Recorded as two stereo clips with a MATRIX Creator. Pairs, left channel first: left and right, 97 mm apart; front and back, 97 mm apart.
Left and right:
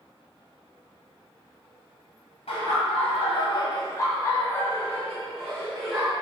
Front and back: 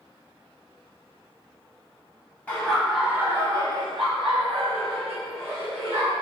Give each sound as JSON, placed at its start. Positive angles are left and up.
{"t": 2.5, "sound": "laughter", "azimuth_deg": 75, "distance_m": 1.0}